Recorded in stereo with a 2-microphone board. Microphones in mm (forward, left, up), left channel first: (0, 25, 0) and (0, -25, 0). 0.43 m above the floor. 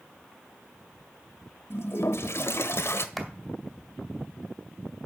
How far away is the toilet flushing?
About 1.0 m.